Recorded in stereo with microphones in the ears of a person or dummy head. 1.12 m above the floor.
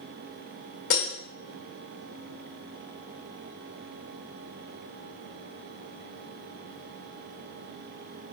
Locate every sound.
0.9 s breaking glass: 70° left (ahead or behind), 1.6 m